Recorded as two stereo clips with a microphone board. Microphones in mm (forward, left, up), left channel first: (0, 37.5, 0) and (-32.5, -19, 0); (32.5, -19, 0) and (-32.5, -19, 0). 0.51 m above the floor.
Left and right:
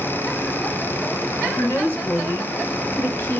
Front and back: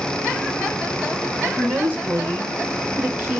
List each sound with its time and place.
1.6 s a woman speaking: 120° left, 3 m; by 3.4 s 115° left, 1.6 m